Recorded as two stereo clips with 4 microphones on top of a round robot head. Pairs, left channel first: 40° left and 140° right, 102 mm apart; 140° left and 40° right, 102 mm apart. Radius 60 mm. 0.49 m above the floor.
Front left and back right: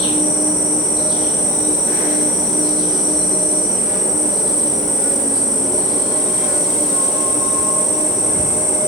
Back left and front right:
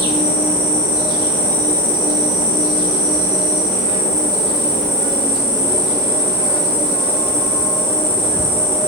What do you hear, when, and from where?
0.0 s an insect: 55° right, 1.4 m